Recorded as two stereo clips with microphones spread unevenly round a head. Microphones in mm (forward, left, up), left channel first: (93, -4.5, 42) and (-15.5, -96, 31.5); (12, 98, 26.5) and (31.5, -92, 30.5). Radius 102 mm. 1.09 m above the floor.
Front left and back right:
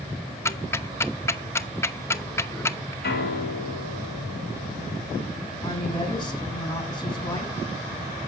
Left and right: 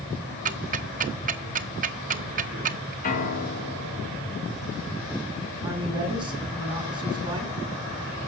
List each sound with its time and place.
0.5 s ticking: 35° right, 0.8 m
3.0 s a piano: 50° left, 3.5 m
5.6 s a woman speaking: 20° right, 8 m